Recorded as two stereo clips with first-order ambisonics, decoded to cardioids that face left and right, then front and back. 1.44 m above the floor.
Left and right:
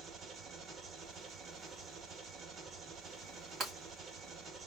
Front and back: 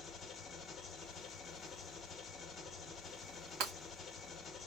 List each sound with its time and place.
0.0 s an engine running: 55° right, 0.9 m
3.6 s breaking glass: 155° right, 3 m